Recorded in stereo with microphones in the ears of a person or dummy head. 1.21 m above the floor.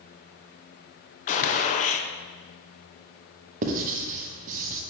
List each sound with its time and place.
1.3 s a gunshot: 40° left (ahead or behind), 0.7 m
3.6 s writing: 45° right (ahead or behind), 0.9 m